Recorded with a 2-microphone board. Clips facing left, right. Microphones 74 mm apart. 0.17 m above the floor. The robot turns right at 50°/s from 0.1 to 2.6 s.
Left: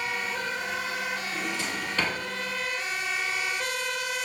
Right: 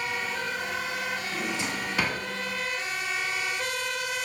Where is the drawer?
25° right (ahead or behind), 0.8 m; by 2.2 s 5° right (ahead or behind), 0.8 m.